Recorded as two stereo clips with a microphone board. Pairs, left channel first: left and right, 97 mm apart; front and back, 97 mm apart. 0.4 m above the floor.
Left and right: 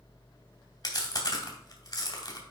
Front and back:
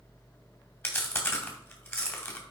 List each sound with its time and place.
0.8 s chewing: 55° left, 2 m